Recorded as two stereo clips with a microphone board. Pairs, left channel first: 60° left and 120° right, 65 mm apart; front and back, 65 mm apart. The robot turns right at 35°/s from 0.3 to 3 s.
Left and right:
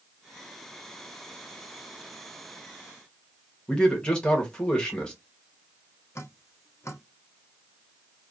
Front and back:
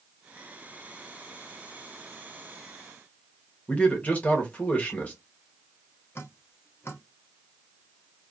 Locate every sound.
3.7 s a man speaking: 10° left, 1.1 m
6.2 s dripping: 35° left, 0.7 m